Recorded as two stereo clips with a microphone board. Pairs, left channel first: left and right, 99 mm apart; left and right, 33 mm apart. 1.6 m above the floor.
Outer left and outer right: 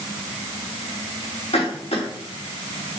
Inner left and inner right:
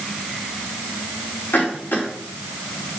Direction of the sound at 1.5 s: 85° left.